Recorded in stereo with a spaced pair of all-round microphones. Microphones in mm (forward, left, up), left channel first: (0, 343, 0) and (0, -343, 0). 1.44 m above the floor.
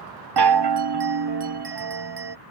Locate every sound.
0.4 s a chime: 40° right (ahead or behind)